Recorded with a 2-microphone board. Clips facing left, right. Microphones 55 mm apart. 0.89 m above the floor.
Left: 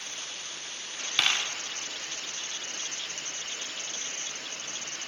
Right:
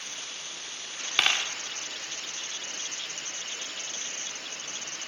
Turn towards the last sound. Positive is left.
turn(degrees=-25)  # may be behind; listen again after turning